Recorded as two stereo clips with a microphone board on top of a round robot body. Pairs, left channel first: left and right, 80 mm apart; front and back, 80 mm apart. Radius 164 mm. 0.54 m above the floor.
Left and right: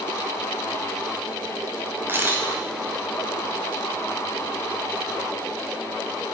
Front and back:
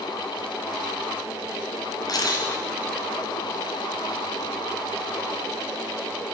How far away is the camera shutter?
About 1.9 m.